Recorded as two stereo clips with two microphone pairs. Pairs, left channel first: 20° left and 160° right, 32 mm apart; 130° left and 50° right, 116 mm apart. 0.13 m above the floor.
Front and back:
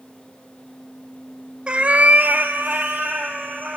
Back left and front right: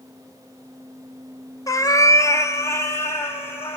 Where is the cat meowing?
165° left, 0.7 m; by 3.8 s 160° right, 3 m.